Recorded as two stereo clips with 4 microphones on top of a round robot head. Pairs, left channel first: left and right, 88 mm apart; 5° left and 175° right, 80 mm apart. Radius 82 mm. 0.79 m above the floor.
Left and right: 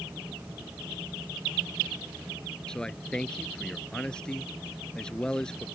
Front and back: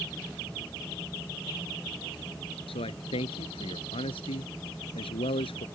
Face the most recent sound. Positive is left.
turn(degrees=10)